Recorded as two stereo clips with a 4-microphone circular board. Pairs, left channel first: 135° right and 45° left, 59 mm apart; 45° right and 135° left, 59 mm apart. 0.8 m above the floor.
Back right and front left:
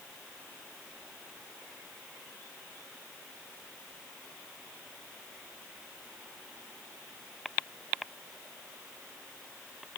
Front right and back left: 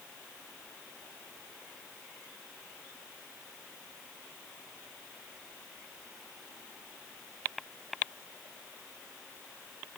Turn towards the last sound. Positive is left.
No sound to turn to.